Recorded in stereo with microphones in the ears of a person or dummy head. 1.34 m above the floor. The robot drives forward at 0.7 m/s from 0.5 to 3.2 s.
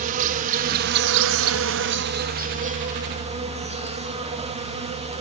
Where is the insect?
40° right (ahead or behind), 1.0 m; by 5.2 s 25° right (ahead or behind), 1.4 m.